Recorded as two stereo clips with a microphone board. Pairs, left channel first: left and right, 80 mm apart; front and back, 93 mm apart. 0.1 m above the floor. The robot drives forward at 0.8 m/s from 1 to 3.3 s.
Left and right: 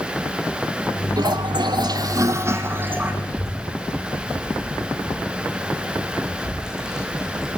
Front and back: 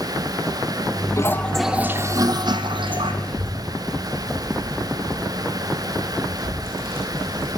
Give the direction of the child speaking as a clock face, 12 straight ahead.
6 o'clock.